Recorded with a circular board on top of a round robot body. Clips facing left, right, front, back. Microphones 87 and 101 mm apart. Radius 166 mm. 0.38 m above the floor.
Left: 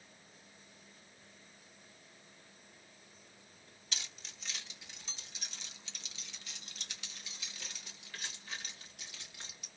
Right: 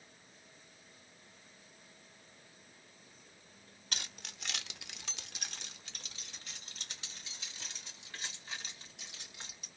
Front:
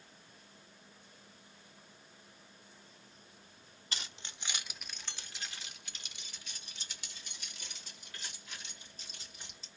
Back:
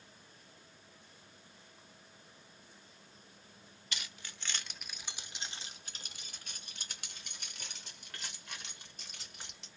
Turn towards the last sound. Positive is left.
turn(degrees=-160)